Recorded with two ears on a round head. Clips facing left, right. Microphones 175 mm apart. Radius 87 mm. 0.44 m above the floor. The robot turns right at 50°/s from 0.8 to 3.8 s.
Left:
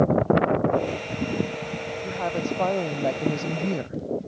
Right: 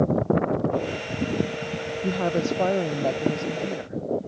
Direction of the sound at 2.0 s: 50° right.